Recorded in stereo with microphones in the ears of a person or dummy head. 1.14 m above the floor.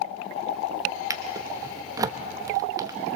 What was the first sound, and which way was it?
A drawer, 20° right (ahead or behind).